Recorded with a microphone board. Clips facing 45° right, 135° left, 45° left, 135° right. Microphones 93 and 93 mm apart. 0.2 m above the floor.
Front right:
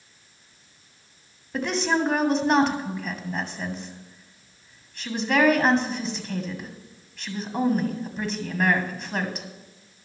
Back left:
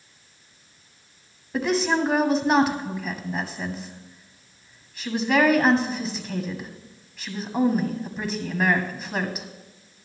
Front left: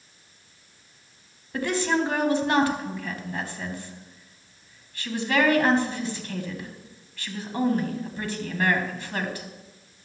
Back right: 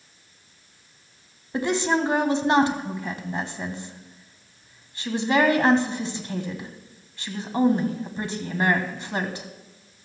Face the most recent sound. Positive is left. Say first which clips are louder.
# back left 2 dB, back right 2 dB
turn(degrees=-140)